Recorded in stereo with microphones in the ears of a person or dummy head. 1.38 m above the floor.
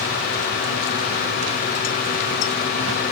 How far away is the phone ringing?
No phone ringing in this recording.